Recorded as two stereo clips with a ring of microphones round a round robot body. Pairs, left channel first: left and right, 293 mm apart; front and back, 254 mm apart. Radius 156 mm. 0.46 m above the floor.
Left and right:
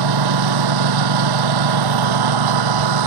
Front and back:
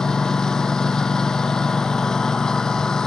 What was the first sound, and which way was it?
A lawn mower, 90° right.